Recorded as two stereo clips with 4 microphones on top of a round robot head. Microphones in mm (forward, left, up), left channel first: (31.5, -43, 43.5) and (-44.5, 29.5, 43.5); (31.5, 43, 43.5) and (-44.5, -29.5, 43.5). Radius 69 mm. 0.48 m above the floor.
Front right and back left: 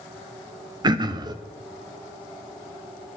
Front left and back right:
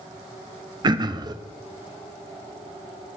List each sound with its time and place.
0.8 s throat clearing: straight behind, 0.8 m